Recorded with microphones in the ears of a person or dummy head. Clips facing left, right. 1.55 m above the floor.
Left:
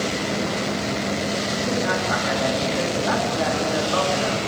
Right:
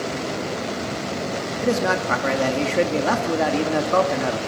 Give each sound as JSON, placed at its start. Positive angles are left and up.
{"t": 1.6, "sound": "a man speaking", "side_deg": -60, "distance_m": 2.5}